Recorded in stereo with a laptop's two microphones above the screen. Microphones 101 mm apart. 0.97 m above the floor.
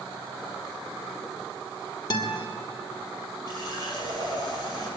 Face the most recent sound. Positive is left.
turn(degrees=-40)  # may be behind; listen again after turning